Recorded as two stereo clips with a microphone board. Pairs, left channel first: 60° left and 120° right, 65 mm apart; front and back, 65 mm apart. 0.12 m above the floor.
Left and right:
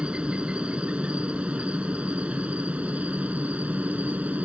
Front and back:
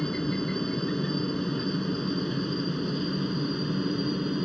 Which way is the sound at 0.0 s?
70° right.